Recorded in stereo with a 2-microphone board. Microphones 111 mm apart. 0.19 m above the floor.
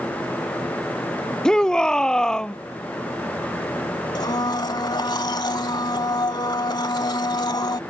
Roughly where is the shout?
Centre.